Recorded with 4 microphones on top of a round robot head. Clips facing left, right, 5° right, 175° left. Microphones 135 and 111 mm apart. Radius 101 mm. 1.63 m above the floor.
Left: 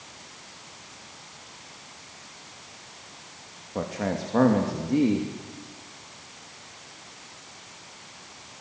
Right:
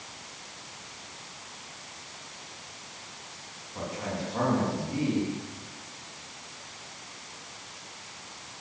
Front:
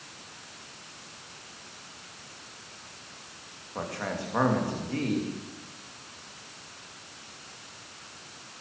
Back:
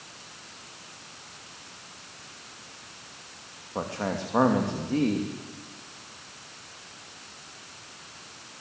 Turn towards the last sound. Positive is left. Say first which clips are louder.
# left 5 dB, back 3 dB
turn(degrees=110)